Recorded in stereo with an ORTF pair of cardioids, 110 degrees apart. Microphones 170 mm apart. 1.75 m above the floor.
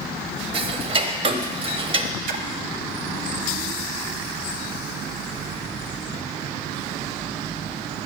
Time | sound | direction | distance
0.5 | ticking | 30° right | 0.7 m
2.3 | a splash | 60° right | 0.7 m